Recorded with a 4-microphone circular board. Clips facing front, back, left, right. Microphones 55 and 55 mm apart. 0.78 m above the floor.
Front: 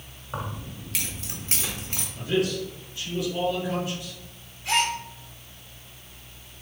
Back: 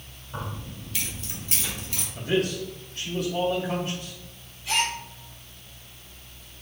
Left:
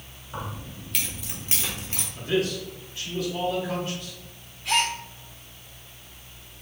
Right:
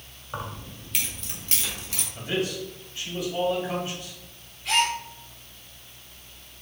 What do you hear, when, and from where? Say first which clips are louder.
0.3 s keys jangling: front 2 dB, even; 25° right, 1.4 m; by 2.0 s 40° left, 1.5 m
2.1 s a man speaking: even, left 3 dB; 155° right, 1.8 m
4.7 s a gasp: front 2 dB, right 1 dB; 5° left, 2.0 m